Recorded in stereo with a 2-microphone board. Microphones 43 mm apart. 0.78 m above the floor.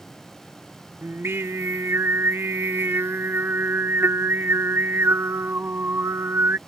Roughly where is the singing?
Right.